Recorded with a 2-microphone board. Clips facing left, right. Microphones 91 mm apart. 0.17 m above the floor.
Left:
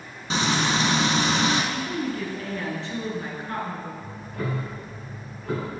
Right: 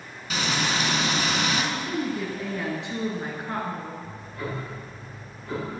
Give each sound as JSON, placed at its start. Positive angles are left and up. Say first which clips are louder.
{"t": 0.3, "sound": "frying", "louder": "left 3 dB", "side_deg": 30, "distance_m": 0.9}
{"t": 1.7, "sound": "a woman speaking", "louder": "even", "side_deg": -15, "distance_m": 1.9}
{"t": 4.0, "sound": "ticking", "louder": "left 3 dB", "side_deg": 65, "distance_m": 3.0}